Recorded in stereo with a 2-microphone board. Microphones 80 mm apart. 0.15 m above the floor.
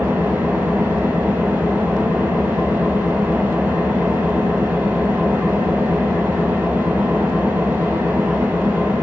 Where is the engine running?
25° right (ahead or behind), 1.1 m.